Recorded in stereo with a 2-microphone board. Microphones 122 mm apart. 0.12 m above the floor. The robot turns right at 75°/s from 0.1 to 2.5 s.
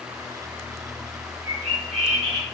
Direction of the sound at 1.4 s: 120° right.